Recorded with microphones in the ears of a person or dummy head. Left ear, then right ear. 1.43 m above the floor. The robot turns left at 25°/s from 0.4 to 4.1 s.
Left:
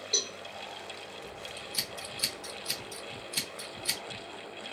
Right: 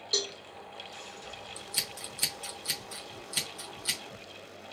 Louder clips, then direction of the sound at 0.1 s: Even; 20° right (ahead or behind).